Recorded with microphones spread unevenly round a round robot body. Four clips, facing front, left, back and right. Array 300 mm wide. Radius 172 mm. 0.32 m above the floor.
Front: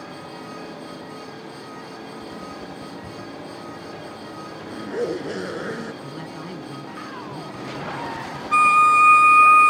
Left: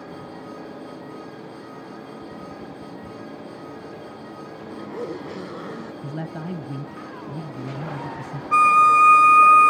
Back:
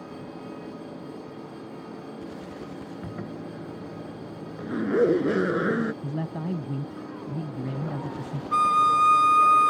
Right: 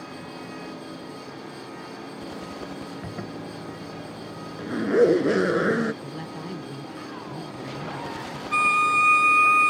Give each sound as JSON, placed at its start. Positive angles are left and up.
{"t": 3.0, "sound": "a zipper", "azimuth_deg": -135}
{"t": 6.0, "sound": "a man speaking", "azimuth_deg": 155}
{"t": 8.5, "sound": "a violin", "azimuth_deg": 95}